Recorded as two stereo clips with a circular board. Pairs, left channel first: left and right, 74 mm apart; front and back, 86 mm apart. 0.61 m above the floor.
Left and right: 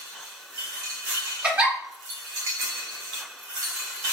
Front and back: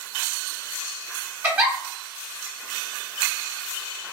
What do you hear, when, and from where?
1.4 s a giggle: 140° right, 1.3 m